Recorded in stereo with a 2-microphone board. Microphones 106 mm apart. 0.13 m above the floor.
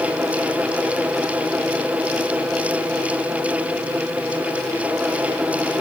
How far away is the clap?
I don't hear a clap.